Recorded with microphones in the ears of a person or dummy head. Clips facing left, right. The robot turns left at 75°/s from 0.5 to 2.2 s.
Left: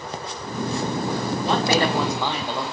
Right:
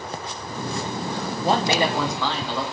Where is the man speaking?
140° right, 1.5 m; by 2.6 s 165° left, 1.5 m.